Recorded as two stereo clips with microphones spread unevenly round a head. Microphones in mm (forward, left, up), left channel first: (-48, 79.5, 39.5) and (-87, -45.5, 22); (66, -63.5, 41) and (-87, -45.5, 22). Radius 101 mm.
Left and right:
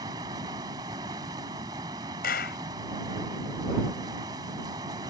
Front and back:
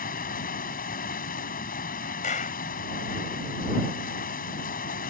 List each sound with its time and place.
0.0 s running water: 35° right
2.2 s a clap: 50° left